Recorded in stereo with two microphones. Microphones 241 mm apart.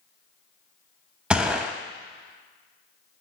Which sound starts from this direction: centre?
A gunshot, at 1.3 s.